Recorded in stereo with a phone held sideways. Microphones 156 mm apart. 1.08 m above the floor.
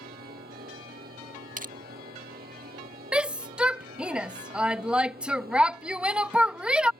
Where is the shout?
5° right (ahead or behind).